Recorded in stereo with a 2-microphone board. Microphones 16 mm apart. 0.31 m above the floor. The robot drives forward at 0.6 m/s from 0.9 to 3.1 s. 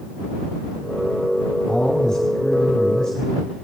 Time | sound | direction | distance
1.7 | a man speaking | 60° left (ahead or behind) | 3 m